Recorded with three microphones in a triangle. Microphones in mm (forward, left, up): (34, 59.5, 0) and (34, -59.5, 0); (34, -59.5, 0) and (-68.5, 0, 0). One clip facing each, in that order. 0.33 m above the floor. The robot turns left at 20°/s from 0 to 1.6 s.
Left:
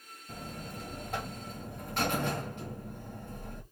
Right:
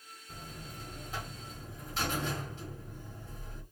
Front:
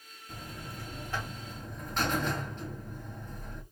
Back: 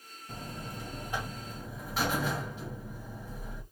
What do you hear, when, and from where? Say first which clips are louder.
0.3 s a buzzer: left 5 dB, back 2 dB; 95° left, 1.3 m; by 3.6 s 70° left, 1.3 m